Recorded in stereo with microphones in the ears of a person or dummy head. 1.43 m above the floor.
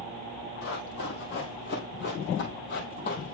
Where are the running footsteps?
45° left (ahead or behind), 2.5 m; by 3.3 s 50° left (ahead or behind), 2.5 m.